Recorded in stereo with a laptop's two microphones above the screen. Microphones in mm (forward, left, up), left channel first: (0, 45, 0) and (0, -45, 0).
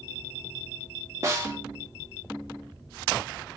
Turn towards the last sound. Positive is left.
turn(degrees=-30)  # may be behind; listen again after turning